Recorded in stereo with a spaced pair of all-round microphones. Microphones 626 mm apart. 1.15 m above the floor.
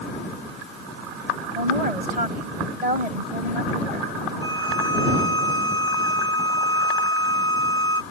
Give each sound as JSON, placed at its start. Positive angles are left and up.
{"t": 1.6, "sound": "a woman speaking", "side_deg": -75}
{"t": 4.4, "sound": "a violin", "side_deg": -20}